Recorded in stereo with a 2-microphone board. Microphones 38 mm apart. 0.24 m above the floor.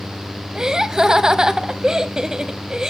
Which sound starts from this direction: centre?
Laughter, at 0.6 s.